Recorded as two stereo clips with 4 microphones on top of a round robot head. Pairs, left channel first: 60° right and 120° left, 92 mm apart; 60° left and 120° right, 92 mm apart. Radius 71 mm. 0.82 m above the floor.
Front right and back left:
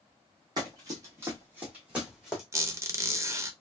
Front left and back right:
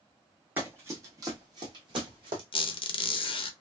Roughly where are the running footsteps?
Behind.